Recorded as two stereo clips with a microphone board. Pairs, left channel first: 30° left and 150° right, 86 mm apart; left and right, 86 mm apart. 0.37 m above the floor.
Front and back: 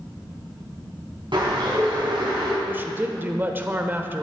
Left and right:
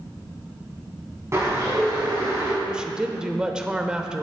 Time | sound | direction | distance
1.3 | a bird | 145° right | 4 m
2.6 | a woman speaking | 160° right | 0.8 m